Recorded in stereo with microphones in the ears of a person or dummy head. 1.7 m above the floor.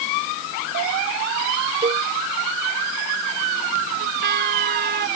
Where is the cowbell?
20° right (ahead or behind).